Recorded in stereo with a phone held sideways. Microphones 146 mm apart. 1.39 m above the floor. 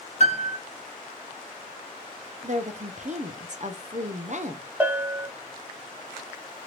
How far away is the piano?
About 0.6 m.